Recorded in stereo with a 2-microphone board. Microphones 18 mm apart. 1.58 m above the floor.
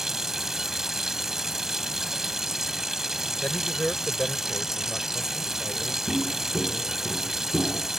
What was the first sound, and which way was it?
Running water, 30° right (ahead or behind).